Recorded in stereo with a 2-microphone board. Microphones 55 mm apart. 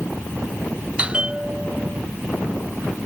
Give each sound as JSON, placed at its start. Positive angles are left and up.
{"t": 1.0, "sound": "a bell", "side_deg": -20}